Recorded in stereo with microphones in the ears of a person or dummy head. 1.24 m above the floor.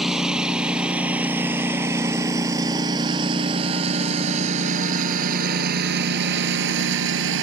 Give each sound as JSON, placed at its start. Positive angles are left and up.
{"t": 0.0, "sound": "a lawn mower", "side_deg": -5}